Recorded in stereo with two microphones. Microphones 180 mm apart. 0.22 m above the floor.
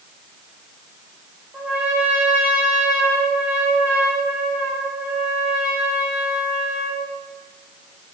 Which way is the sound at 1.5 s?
5° right (ahead or behind).